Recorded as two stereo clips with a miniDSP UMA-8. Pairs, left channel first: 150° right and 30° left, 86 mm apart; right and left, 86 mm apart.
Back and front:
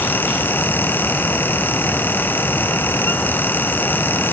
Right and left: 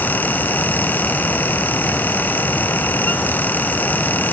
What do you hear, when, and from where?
Only background noise.